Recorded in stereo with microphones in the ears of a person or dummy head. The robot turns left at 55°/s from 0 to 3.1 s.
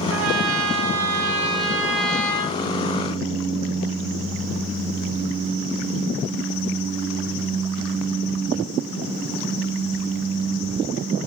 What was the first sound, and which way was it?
A trumpet, 70° right.